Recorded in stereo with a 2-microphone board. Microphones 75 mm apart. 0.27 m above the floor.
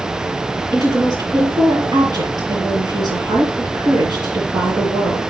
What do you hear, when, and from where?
0.7 s a woman speaking: 65° right (ahead or behind), 6 m